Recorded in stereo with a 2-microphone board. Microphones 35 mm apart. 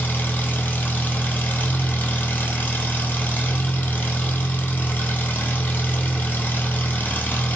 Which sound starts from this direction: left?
An engine running, at 0.0 s.